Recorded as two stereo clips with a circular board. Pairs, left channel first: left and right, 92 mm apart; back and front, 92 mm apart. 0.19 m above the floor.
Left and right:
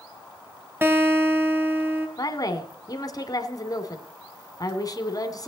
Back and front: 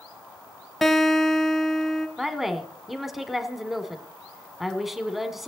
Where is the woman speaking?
85° left, 1.5 m.